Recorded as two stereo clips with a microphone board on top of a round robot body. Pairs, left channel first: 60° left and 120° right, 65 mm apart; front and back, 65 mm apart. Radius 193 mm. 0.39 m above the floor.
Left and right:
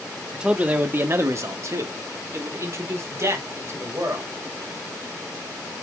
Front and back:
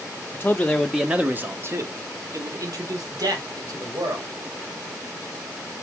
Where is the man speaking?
50° right, 1.0 m; by 4.3 s 165° right, 3 m.